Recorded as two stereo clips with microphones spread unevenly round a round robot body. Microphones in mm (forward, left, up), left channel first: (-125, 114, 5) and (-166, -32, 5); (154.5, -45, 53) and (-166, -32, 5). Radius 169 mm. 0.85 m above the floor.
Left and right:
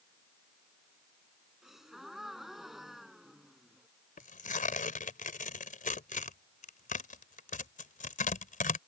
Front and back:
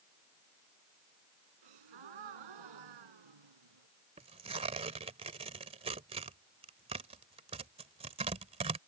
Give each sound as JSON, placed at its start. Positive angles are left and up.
{"t": 1.6, "sound": "a gasp", "azimuth_deg": 165}
{"t": 4.2, "sound": "tearing paper", "azimuth_deg": 105}